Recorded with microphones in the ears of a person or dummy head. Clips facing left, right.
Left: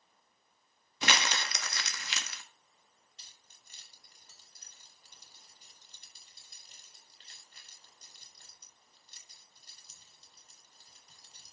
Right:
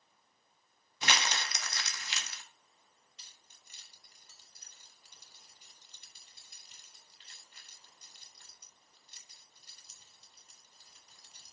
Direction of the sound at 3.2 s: 35° left (ahead or behind).